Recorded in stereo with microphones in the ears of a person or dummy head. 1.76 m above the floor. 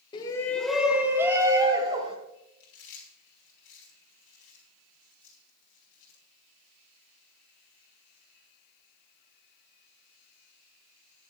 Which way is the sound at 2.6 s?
70° left (ahead or behind).